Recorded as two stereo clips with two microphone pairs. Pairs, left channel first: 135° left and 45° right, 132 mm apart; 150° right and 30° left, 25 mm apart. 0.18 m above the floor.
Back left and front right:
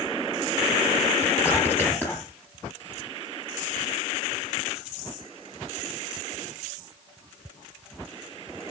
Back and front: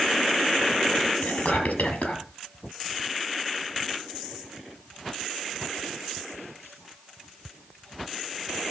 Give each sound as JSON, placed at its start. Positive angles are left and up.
{"t": 1.2, "sound": "whispering", "azimuth_deg": -150, "distance_m": 5.0}